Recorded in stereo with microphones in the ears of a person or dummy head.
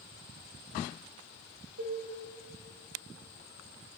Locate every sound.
1.8 s dishes clattering: 70° right (ahead or behind), 3 m